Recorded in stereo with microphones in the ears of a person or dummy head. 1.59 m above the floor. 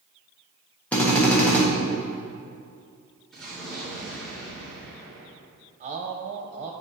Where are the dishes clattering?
No dishes clattering in this recording.